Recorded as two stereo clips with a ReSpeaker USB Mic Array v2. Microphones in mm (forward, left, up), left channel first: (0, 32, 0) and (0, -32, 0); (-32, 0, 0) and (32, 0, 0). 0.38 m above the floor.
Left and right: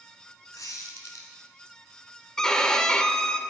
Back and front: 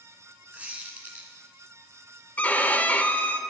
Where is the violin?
155° left, 0.6 m.